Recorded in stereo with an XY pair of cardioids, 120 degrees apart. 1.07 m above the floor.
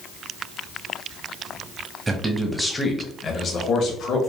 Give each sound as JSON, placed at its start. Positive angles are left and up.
{"t": 2.1, "sound": "a man speaking", "azimuth_deg": -20, "distance_m": 0.8}